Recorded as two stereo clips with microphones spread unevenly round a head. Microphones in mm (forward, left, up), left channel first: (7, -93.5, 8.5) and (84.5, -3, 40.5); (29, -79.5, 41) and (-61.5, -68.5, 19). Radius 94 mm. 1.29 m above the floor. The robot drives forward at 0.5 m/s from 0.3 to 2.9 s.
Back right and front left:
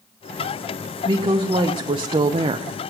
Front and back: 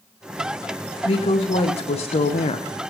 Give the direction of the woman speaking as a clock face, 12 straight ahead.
12 o'clock.